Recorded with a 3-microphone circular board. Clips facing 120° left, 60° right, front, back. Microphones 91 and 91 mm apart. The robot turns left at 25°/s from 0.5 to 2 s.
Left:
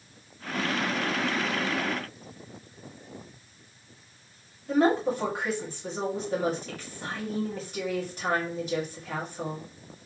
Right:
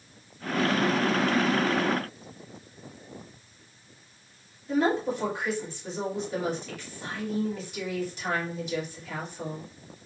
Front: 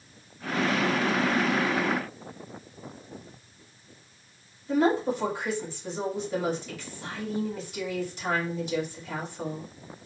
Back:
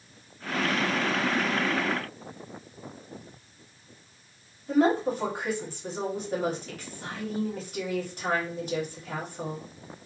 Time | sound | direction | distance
4.7 | a woman speaking | 155° left | 2 m